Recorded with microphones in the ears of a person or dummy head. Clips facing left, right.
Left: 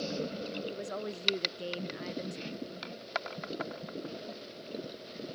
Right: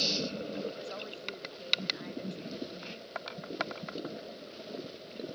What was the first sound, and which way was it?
A woman speaking, 45° left (ahead or behind).